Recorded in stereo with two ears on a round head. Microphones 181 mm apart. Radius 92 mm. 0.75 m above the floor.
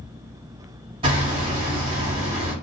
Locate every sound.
1.0 s hammering: 30° right (ahead or behind), 1.4 m